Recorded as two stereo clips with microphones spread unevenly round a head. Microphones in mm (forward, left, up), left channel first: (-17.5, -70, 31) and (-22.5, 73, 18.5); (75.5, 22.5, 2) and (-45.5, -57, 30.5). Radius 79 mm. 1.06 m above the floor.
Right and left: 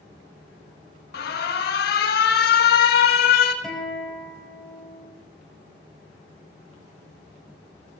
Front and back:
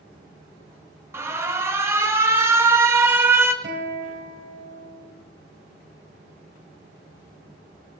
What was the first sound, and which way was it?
An alarm, 70° right.